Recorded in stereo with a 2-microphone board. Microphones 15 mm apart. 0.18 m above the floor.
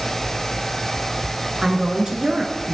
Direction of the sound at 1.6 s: 50° right (ahead or behind).